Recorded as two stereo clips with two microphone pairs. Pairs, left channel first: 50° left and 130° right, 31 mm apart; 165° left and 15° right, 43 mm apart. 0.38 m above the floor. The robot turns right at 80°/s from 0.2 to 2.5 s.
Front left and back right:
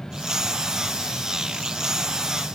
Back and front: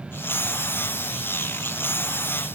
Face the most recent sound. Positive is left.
No sound to turn to.